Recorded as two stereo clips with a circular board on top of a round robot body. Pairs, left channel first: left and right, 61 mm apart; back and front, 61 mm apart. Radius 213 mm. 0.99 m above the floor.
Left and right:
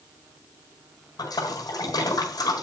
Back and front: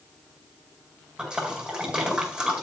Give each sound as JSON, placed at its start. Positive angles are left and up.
{"t": 1.2, "sound": "a splash", "azimuth_deg": 80, "distance_m": 5.0}